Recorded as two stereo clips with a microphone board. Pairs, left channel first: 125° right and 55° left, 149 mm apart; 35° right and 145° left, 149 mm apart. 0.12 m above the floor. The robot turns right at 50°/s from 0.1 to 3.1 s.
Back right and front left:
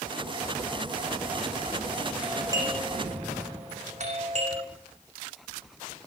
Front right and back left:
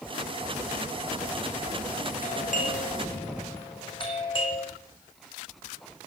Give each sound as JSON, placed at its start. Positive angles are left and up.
{"t": 2.2, "sound": "a doorbell", "azimuth_deg": -25, "distance_m": 6.0}